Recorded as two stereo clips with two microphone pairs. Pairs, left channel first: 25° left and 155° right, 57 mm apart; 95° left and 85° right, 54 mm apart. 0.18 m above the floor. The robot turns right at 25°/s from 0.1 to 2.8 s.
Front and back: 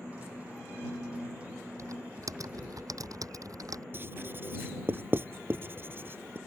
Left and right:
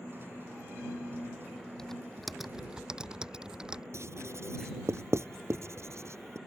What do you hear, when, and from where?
1.8 s typing on a keyboard: straight behind; by 3.8 s 155° right
3.9 s writing: 110° right